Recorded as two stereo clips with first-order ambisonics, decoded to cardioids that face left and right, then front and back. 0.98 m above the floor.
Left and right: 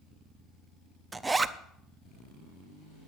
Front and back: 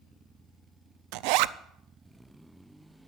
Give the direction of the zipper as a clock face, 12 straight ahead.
6 o'clock.